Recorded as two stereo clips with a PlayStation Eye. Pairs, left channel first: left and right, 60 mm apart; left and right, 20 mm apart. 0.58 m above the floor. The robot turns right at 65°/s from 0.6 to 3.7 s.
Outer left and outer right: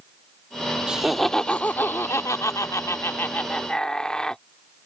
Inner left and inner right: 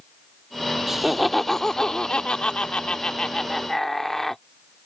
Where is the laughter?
20° right; by 4.4 s 165° left.